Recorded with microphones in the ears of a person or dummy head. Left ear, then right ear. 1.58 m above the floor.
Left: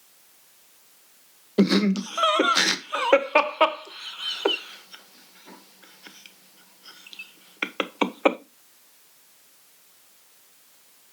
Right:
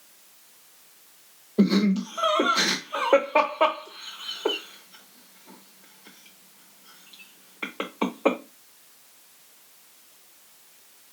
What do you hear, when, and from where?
1.6 s laughter: 70° left (ahead or behind), 0.6 m